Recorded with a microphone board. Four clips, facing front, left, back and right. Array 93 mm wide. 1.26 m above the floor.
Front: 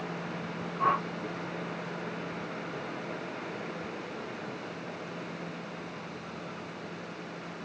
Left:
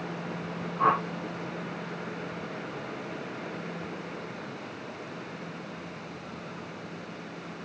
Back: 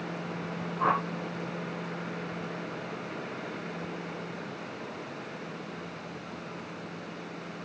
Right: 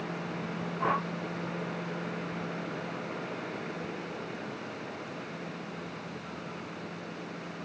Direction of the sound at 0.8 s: 95° left.